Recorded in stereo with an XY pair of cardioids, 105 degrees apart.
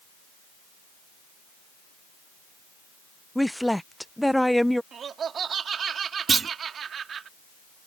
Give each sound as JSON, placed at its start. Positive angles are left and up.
{"t": 3.4, "sound": "a woman speaking", "azimuth_deg": 5}
{"t": 4.9, "sound": "laughter", "azimuth_deg": -50}
{"t": 6.3, "sound": "a clunk", "azimuth_deg": -40}